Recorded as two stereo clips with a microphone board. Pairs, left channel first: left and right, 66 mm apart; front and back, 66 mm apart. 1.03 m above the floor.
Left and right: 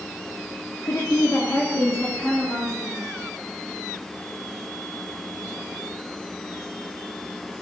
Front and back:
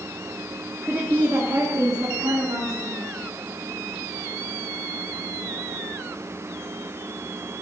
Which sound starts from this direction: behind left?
A woman speaking, at 0.8 s.